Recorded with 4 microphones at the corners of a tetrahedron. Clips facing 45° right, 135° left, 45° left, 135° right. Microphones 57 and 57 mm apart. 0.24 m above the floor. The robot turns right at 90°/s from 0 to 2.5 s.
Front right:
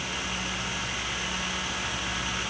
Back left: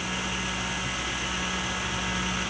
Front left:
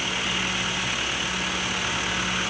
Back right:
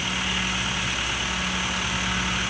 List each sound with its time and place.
Only background noise.